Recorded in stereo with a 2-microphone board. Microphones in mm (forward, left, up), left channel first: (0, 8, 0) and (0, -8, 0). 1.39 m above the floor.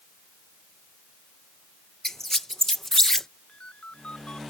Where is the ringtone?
85° left.